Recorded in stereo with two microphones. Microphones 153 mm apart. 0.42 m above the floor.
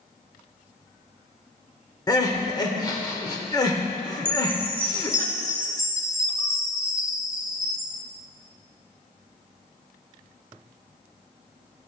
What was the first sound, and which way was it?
Crying, 25° left (ahead or behind).